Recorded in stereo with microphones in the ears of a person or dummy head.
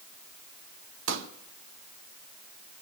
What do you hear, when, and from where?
1.1 s a pop: 75° right (ahead or behind), 1.0 m